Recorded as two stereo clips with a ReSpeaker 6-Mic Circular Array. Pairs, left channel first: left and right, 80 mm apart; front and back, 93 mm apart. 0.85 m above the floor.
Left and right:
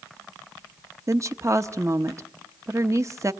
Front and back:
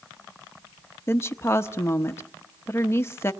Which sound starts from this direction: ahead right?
A woman speaking, at 1.1 s.